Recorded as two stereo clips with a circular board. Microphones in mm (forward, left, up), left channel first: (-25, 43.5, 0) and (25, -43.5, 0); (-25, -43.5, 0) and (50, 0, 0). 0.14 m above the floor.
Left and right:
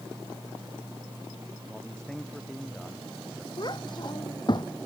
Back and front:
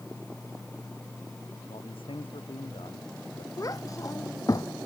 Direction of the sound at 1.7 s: 155° right.